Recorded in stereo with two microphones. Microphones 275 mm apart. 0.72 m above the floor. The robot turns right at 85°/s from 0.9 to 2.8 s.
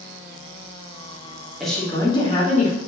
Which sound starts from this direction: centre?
A woman speaking, at 1.6 s.